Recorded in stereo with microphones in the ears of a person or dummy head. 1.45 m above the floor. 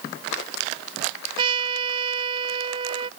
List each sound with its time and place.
1.4 s a trumpet: 35° right (ahead or behind)